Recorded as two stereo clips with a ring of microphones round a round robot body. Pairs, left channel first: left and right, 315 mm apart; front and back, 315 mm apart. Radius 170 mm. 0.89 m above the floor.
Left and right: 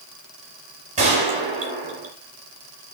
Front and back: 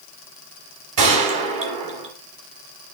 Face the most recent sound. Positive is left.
turn(degrees=-160)